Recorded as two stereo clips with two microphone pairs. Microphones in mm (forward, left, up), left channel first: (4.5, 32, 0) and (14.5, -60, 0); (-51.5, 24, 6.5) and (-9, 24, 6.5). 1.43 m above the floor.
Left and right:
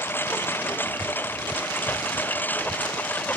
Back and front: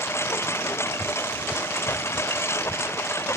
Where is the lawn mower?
165° left; by 3.4 s 170° left.